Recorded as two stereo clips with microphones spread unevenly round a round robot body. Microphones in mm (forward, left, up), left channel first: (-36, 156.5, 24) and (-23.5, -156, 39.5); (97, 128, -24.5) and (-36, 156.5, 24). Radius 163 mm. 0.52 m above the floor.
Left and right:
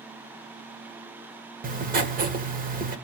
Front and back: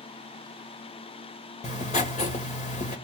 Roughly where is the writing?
Ahead right.